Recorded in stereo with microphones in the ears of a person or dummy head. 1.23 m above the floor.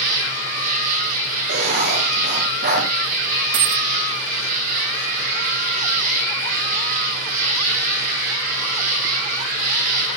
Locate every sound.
0.0 s an insect: 50° right (ahead or behind), 9 m
1.5 s writing: 55° right (ahead or behind), 6.5 m
3.5 s a dropped coin: 55° right (ahead or behind), 1.2 m